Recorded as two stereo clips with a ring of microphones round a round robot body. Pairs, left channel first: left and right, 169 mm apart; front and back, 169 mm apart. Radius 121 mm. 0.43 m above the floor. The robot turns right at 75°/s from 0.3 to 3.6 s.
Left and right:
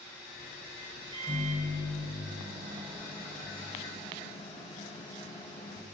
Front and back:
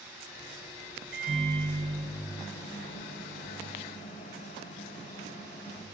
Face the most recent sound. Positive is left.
turn(degrees=35)